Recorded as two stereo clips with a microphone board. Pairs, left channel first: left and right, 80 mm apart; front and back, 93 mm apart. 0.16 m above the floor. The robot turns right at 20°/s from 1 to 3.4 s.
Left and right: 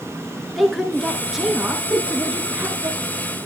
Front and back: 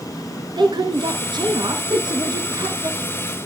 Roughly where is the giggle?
Behind left.